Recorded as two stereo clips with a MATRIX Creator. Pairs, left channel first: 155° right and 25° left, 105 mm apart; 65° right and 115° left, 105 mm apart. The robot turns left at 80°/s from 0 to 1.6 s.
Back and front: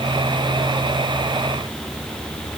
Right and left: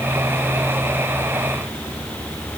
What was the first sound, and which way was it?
Only background noise.